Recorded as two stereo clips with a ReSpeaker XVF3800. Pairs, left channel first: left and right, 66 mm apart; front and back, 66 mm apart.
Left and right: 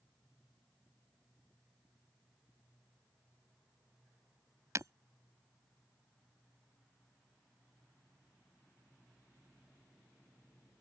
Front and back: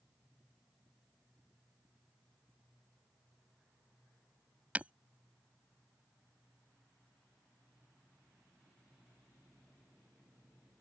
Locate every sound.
4.8 s breaking glass: 115° right